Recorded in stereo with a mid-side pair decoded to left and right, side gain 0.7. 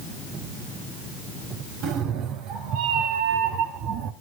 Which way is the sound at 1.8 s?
60° right.